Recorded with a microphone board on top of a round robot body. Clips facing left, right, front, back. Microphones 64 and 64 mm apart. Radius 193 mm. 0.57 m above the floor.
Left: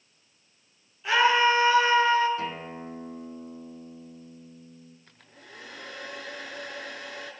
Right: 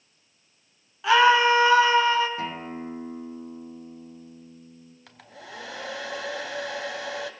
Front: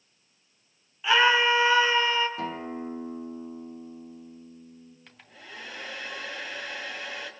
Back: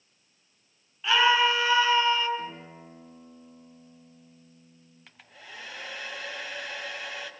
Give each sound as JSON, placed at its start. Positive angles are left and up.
{"t": 1.0, "sound": "a scream", "azimuth_deg": -85, "distance_m": 7.5}
{"t": 2.4, "sound": "a guitar", "azimuth_deg": -15, "distance_m": 5.0}
{"t": 5.1, "sound": "a hair dryer", "azimuth_deg": -90, "distance_m": 2.5}